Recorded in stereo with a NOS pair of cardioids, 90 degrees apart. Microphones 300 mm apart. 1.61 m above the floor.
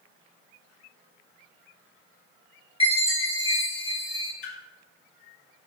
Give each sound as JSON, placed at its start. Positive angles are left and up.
{"t": 2.8, "sound": "a chime", "azimuth_deg": 20, "distance_m": 3.0}
{"t": 4.4, "sound": "a splash", "azimuth_deg": 45, "distance_m": 2.0}